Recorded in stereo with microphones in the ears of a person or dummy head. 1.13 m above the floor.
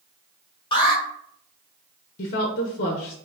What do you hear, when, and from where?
0.7 s an alarm: 20° left (ahead or behind), 0.8 m
2.2 s a woman speaking: 50° left (ahead or behind), 0.5 m